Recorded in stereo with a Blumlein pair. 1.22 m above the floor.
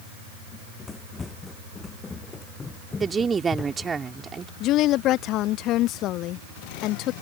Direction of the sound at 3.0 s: 15° right.